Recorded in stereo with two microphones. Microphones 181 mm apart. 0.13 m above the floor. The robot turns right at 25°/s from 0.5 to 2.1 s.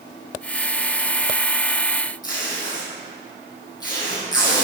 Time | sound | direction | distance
2.2 | tape being pulled | 20° left (ahead or behind) | 3 m